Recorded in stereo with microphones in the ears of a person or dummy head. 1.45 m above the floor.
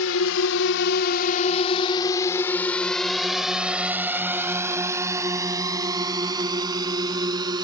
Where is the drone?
85° left; by 7.6 s 20° right (ahead or behind).